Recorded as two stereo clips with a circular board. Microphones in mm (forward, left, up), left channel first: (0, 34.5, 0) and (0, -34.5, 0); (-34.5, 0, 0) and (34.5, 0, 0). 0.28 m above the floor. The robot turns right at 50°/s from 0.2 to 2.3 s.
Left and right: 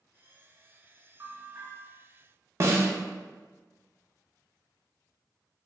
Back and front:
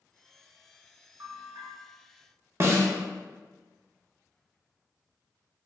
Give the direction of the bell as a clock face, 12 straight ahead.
1 o'clock.